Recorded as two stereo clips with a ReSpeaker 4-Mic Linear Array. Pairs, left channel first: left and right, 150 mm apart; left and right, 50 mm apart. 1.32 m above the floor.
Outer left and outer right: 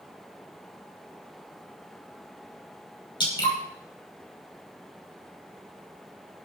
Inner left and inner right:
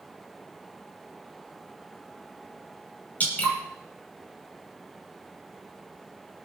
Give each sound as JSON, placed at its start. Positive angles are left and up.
{"t": 3.2, "sound": "dripping", "side_deg": 35, "distance_m": 5.5}